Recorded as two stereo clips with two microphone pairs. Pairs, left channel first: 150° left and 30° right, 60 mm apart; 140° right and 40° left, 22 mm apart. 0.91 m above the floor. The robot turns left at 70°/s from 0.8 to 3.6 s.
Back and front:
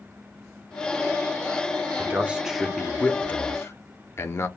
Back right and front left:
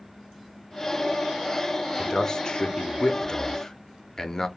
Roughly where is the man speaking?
Right.